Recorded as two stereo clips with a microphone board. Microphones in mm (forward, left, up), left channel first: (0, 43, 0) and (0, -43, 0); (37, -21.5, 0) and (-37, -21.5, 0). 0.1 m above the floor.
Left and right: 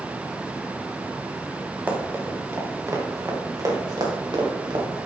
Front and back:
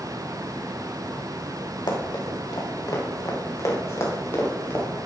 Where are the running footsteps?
20° right, 3 m; by 4.8 s 65° right, 3.5 m.